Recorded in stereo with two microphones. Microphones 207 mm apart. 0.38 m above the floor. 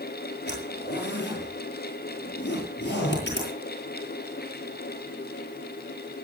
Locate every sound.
0.5 s a zipper: 60° left (ahead or behind), 8.5 m